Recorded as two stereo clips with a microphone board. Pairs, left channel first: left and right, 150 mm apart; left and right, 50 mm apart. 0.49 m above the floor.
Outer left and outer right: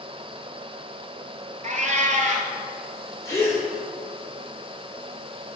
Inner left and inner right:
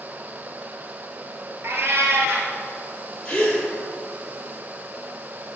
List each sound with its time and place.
1.6 s a cat meowing: 55° right (ahead or behind), 0.8 m
3.2 s a gasp: 25° left (ahead or behind), 1.8 m